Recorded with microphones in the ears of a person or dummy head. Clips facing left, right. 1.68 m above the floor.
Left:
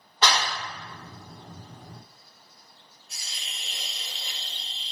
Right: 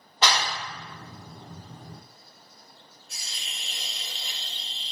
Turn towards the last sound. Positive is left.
turn(degrees=5)  # may be behind; listen again after turning